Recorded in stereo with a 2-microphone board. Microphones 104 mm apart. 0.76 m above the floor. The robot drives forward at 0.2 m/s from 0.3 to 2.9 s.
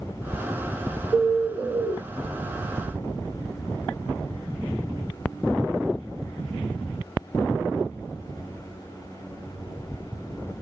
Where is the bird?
15° right (ahead or behind), 0.6 m.